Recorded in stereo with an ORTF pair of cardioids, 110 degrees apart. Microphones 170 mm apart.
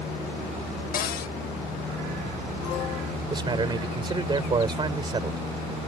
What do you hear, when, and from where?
0.9 s a cupboard door: 60° left
3.3 s a man speaking: 25° right